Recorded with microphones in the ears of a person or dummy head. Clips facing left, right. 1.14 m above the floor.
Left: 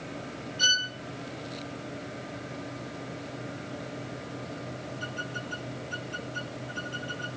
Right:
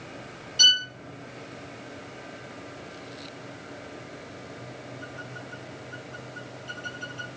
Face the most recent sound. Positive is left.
turn(degrees=-80)